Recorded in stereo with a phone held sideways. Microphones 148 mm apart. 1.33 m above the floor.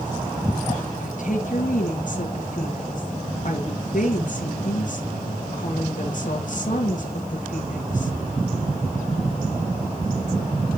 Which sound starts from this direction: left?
A woman speaking, at 1.0 s.